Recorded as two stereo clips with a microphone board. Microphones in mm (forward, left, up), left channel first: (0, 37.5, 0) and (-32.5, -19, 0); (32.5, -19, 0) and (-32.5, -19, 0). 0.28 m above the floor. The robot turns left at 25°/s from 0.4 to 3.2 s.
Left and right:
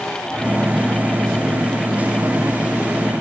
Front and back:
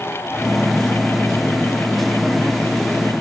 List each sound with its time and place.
Only background noise.